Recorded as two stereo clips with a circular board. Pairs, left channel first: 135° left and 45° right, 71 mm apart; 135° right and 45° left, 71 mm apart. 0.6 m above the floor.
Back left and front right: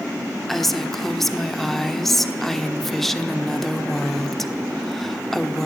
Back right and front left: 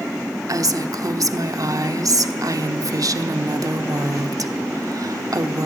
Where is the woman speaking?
50° left, 1.2 m.